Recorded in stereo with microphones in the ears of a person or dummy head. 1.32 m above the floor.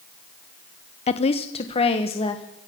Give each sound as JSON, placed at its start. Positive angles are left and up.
{"t": 1.1, "sound": "a woman speaking", "side_deg": 35, "distance_m": 0.7}